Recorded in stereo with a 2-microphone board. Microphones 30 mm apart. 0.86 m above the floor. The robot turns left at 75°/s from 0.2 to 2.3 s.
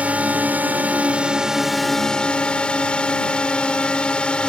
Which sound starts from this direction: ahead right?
A drone, at 0.0 s.